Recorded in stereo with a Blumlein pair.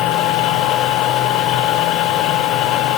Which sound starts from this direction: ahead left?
A machine running, at 0.0 s.